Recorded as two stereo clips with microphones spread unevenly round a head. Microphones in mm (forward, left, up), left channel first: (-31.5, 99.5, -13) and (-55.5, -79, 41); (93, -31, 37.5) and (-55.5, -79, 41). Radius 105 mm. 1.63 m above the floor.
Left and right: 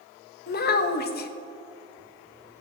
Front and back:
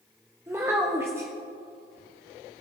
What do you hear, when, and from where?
0.5 s a child speaking: 120° left, 1.2 m